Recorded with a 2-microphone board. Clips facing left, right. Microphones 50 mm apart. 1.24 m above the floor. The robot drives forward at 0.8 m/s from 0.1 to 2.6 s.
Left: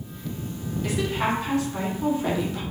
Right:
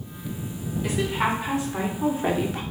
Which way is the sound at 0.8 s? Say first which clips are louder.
Right 1 dB; 10° right (ahead or behind).